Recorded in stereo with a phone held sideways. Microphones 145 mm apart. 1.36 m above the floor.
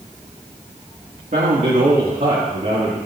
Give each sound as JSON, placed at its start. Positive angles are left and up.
{"t": 1.3, "sound": "a man speaking", "side_deg": -75, "distance_m": 2.0}